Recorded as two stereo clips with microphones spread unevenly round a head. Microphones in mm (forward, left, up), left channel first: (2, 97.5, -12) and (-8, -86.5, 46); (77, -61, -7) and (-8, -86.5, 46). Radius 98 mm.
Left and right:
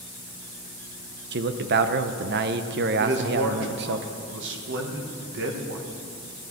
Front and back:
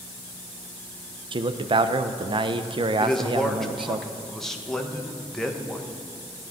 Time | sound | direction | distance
1.3 | a man speaking | 130° right | 0.8 m
3.0 | a man speaking | 60° right | 1.8 m